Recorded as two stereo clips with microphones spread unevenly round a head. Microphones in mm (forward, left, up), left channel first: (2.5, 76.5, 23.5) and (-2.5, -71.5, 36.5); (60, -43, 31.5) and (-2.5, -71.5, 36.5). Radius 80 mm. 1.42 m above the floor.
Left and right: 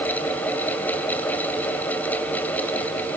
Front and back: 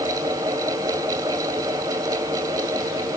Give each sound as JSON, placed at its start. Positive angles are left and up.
{"t": 0.0, "sound": "a fan", "azimuth_deg": 170, "distance_m": 1.7}